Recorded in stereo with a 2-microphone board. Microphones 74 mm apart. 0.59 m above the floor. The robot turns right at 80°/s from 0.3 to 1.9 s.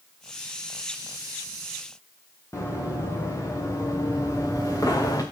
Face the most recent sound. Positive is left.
turn(degrees=55)  # may be behind; listen again after turning